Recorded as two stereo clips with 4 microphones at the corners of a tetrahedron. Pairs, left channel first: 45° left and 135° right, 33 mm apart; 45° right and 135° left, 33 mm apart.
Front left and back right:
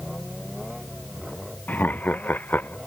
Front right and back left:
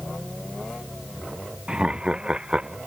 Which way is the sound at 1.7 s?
75° left.